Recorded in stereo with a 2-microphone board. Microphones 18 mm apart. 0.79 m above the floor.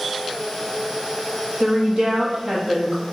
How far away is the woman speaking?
About 1.0 m.